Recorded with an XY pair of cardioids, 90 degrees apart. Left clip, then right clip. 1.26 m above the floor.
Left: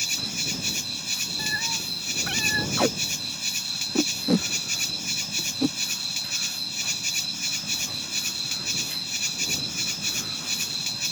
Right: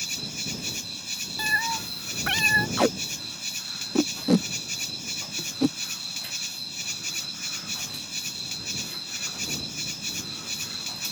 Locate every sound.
0.0 s an insect: 30° left
1.4 s a cat meowing: 50° right
2.8 s tape being pulled: 20° right